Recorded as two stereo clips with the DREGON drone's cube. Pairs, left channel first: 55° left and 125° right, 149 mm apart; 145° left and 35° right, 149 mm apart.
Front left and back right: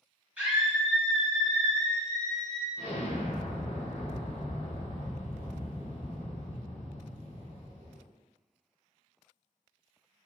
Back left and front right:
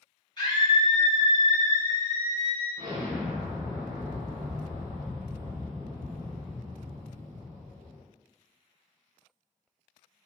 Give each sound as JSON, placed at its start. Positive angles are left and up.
{"t": 0.4, "sound": "a scream", "azimuth_deg": 165, "distance_m": 1.3}
{"t": 2.8, "sound": "an explosion", "azimuth_deg": 20, "distance_m": 0.9}